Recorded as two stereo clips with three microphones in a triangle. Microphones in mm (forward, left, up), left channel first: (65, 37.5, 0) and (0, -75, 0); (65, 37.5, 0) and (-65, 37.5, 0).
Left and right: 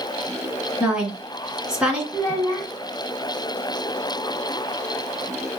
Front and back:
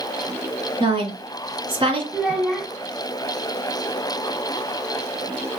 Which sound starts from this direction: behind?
A woman speaking, at 0.8 s.